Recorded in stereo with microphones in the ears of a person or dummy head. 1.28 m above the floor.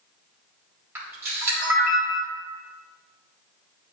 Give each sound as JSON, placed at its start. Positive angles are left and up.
{"t": 0.9, "sound": "a camera shutter", "side_deg": -15, "distance_m": 3.5}